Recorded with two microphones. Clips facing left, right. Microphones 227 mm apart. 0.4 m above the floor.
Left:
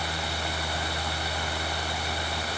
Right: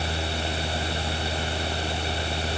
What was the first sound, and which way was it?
Only background noise.